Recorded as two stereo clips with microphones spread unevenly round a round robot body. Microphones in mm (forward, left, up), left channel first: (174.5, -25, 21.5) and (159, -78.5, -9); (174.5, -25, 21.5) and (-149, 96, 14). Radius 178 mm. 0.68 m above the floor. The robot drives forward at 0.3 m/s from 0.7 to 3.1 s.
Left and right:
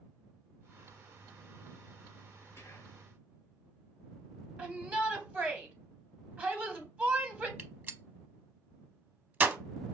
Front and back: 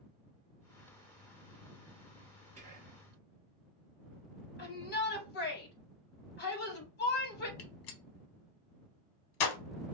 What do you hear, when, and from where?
2.6 s whispering: 150° left, 0.8 m; by 3.0 s 160° left, 0.8 m
4.6 s a shout: 80° right, 1.7 m
7.6 s a gunshot: 55° right, 0.9 m